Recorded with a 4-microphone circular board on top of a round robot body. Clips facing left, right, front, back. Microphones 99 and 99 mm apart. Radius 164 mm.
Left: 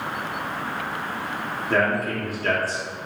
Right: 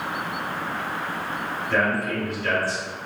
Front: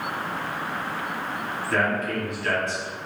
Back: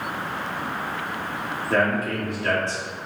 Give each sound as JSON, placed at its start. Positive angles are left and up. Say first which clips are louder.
{"t": 1.7, "sound": "a man speaking", "louder": "left 1 dB, back 2 dB", "azimuth_deg": 130, "distance_m": 1.3}